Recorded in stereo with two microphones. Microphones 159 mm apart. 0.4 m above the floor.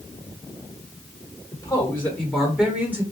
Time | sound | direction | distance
1.5 | a man speaking | 25° left (ahead or behind) | 1.3 m